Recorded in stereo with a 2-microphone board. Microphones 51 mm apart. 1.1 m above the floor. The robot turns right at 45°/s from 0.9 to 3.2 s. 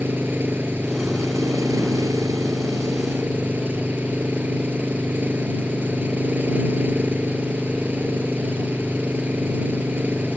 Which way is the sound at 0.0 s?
140° right.